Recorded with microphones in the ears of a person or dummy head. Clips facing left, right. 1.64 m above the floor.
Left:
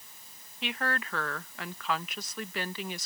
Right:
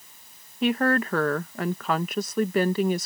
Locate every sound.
0.6 s a woman speaking: 40° right (ahead or behind)